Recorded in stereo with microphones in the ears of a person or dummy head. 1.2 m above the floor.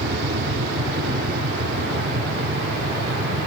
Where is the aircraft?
55° right (ahead or behind); by 3.5 s 60° right (ahead or behind).